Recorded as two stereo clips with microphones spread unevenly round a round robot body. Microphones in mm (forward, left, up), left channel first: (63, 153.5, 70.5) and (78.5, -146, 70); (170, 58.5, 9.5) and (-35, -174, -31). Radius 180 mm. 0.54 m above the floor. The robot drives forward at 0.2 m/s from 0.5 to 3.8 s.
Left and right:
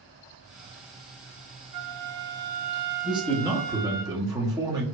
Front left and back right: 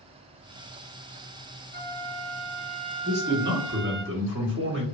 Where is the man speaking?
155° right, 0.8 m; by 4.8 s 160° right, 0.9 m.